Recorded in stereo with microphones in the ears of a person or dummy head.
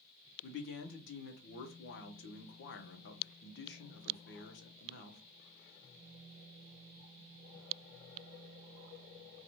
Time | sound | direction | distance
0.4 | a man speaking | 60° left (ahead or behind) | 0.7 m